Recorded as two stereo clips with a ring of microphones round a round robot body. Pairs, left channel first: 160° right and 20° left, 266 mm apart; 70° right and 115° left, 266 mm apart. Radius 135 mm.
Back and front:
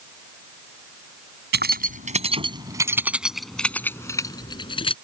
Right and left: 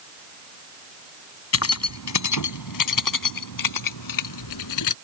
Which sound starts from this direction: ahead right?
Keys jangling, at 1.5 s.